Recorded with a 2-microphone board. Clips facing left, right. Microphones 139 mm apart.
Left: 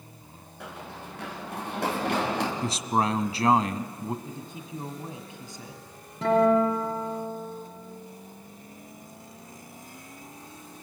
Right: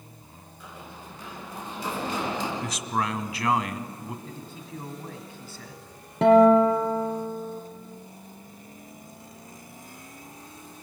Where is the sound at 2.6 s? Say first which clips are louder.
Left 3 dB; 30° left (ahead or behind), 1.3 m.